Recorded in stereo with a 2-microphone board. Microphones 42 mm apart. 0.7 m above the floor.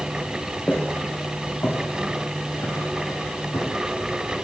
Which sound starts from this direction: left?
Footsteps, at 0.7 s.